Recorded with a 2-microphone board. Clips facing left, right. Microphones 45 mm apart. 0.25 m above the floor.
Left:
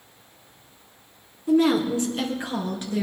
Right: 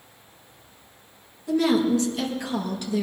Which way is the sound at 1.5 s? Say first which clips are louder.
Left 1 dB; 25° left (ahead or behind).